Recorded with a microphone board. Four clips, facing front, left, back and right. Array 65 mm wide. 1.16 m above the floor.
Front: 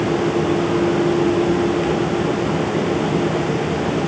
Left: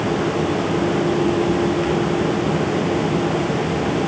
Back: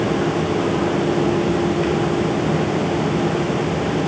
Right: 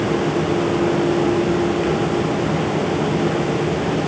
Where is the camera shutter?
No camera shutter in this recording.